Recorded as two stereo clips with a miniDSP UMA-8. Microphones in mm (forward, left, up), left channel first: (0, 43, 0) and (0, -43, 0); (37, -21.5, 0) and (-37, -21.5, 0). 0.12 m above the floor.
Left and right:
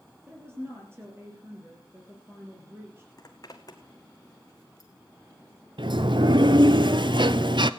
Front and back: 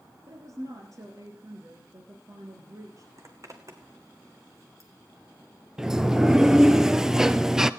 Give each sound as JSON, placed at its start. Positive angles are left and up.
{"t": 0.3, "sound": "a woman speaking", "azimuth_deg": -145, "distance_m": 3.0}
{"t": 3.2, "sound": "a zipper", "azimuth_deg": 135, "distance_m": 2.0}
{"t": 5.8, "sound": "a sliding door", "azimuth_deg": -100, "distance_m": 0.6}